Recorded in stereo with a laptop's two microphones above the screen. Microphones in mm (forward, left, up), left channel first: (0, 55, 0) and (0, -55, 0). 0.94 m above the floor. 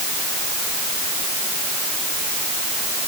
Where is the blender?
I don't hear a blender.